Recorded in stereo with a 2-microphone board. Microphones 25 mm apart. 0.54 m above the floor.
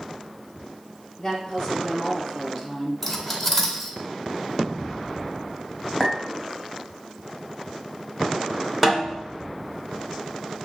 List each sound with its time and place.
1.2 s a woman speaking: 30° left (ahead or behind), 2.5 m
3.0 s cutlery clinking: 10° left (ahead or behind), 0.9 m
6.0 s a clink: 5° right (ahead or behind), 1.5 m
8.8 s a snare drum: 5° right (ahead or behind), 0.9 m